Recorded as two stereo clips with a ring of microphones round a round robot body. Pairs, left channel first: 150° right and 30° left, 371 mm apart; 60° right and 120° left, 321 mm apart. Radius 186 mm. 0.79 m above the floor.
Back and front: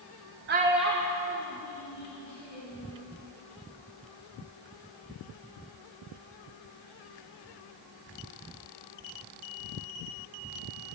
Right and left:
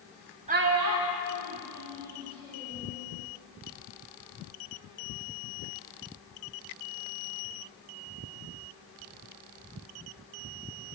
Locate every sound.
0.5 s a child speaking: 65° left, 0.5 m; by 2.9 s 150° left, 3 m